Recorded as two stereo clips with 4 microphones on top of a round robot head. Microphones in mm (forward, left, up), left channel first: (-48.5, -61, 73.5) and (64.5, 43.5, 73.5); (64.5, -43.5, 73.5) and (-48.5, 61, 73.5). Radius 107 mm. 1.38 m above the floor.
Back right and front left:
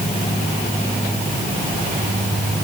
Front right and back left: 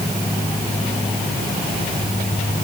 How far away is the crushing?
I don't hear crushing.